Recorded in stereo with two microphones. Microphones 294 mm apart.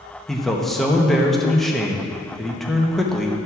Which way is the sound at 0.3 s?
Centre (ahead or behind).